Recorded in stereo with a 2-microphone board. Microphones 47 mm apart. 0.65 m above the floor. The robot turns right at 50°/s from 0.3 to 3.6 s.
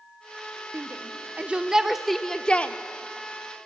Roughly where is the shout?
Right.